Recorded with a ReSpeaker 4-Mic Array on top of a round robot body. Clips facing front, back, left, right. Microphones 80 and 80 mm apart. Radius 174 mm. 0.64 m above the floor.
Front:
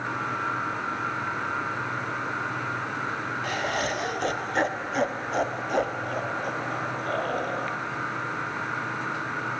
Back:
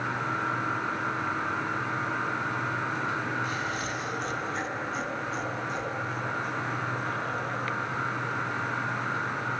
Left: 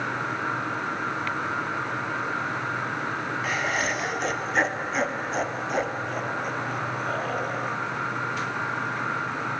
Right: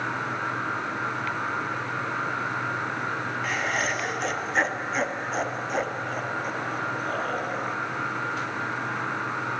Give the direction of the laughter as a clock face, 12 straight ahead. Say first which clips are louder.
Front 4 dB, left 1 dB; 12 o'clock.